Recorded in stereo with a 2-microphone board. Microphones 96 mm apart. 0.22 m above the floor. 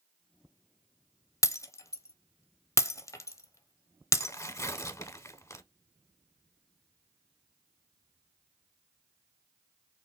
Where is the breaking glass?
35° left (ahead or behind), 0.6 m.